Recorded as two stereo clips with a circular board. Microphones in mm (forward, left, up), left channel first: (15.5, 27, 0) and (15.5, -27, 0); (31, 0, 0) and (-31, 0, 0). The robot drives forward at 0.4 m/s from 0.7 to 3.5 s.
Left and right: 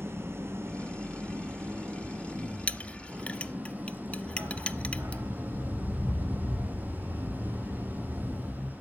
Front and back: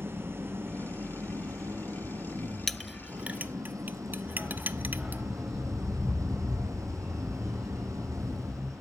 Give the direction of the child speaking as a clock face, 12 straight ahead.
I don't hear a child speaking.